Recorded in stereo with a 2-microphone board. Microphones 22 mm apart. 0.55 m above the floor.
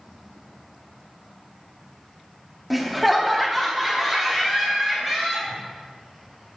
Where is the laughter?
Centre (ahead or behind), 0.7 m; by 5.6 s 5° left (ahead or behind), 3 m.